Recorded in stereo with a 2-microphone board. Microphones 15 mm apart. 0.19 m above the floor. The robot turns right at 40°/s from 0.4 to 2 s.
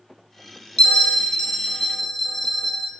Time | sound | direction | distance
0.8 | a bell | 105° left | 0.7 m